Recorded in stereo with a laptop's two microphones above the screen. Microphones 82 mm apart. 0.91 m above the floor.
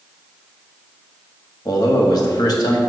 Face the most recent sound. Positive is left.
turn(degrees=55)  # may be behind; listen again after turning